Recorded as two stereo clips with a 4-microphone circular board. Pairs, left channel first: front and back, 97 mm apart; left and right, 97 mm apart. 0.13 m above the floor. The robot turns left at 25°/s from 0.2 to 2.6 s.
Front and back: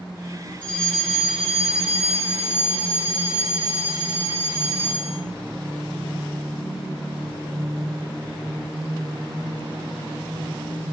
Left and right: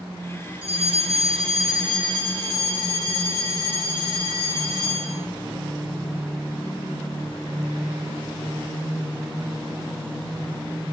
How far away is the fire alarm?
About 8.5 m.